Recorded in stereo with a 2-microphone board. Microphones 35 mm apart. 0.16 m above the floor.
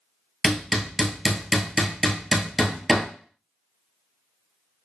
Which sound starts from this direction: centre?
Hammering, at 0.4 s.